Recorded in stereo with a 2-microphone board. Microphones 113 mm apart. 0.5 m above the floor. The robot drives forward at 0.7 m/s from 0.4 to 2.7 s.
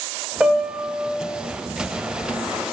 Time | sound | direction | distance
0.4 | a piano | 10° right (ahead or behind) | 0.7 m